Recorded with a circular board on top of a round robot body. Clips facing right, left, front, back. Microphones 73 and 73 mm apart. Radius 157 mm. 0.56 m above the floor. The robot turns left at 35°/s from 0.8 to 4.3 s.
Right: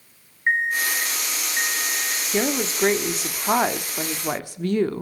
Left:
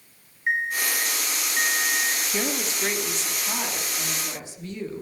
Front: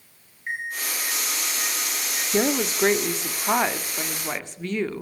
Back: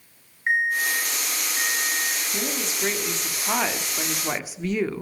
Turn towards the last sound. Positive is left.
turn(degrees=-95)